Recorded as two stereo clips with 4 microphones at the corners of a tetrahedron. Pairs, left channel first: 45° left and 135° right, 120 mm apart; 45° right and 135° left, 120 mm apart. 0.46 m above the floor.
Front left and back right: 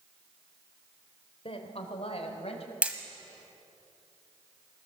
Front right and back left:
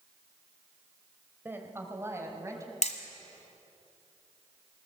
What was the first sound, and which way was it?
A woman speaking, 65° left.